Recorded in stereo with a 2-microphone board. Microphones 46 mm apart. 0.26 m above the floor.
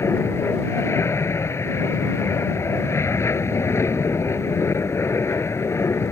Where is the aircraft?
70° left (ahead or behind).